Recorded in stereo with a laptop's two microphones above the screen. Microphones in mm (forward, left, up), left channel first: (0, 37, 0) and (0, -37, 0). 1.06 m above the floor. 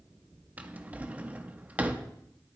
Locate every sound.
0.6 s a drawer: 20° right (ahead or behind), 0.7 m